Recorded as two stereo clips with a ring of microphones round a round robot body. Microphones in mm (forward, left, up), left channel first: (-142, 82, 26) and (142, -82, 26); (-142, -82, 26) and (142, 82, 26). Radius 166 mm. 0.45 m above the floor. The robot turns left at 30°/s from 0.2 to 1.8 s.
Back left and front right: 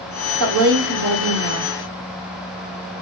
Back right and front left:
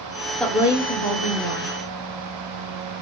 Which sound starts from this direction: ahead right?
A woman speaking, at 0.4 s.